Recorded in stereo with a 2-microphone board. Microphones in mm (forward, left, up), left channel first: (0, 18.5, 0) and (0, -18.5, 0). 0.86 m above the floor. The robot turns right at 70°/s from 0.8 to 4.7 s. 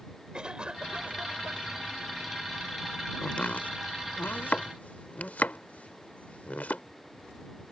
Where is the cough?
150° right; by 1.9 s 80° right.